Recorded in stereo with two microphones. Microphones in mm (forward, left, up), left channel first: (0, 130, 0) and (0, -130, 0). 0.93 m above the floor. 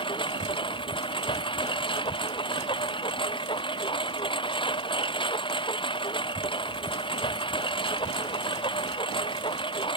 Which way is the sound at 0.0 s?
20° left (ahead or behind).